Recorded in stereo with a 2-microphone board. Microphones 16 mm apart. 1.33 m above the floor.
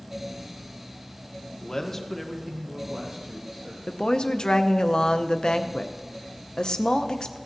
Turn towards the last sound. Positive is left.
turn(degrees=60)  # may be behind; listen again after turning